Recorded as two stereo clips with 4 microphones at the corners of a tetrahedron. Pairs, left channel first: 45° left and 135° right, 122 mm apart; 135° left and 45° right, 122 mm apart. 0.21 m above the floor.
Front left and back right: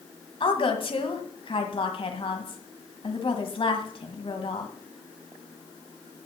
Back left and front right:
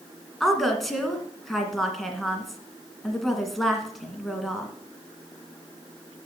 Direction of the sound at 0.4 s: 45° left.